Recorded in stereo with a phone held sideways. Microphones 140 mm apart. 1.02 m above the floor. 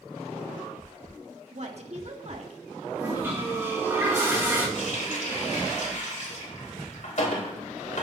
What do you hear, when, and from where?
1.5 s a woman speaking: 50° right (ahead or behind), 1.5 m
3.0 s a toilet flushing: 20° right (ahead or behind), 3.5 m
4.8 s a running tap: 60° left (ahead or behind), 3 m